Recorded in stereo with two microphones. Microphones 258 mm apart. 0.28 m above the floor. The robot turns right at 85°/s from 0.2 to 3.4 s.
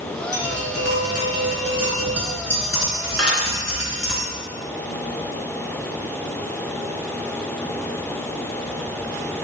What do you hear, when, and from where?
0.3 s tapping: 105° right, 3.5 m; by 4.2 s 155° left, 3.5 m
3.2 s dishes clattering: 70° left (ahead or behind), 2 m; by 3.4 s 60° left (ahead or behind), 2 m